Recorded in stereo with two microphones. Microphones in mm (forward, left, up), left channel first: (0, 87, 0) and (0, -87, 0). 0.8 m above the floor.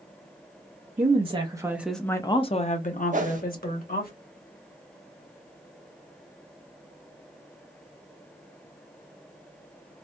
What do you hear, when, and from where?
1.0 s a woman speaking: 40° right (ahead or behind), 0.8 m; by 4.1 s 60° left (ahead or behind), 1.4 m
3.1 s a whoosh: 50° right (ahead or behind), 0.6 m